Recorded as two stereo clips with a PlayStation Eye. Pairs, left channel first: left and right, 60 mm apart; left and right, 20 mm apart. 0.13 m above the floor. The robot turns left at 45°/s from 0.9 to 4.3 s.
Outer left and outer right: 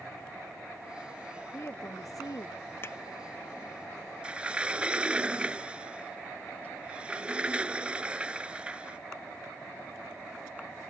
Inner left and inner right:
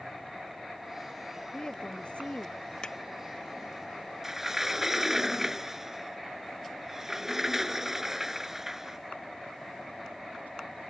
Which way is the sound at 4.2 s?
15° right (ahead or behind).